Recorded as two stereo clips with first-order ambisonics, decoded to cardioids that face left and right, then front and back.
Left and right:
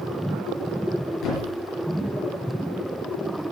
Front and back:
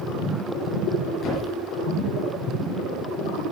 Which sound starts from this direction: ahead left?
A thud, at 1.2 s.